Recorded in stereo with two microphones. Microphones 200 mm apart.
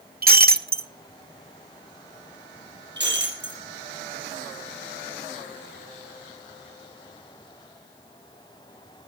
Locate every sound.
0.2 s breaking glass: 50° right (ahead or behind), 1.0 m
3.0 s breaking glass: 60° right (ahead or behind), 6 m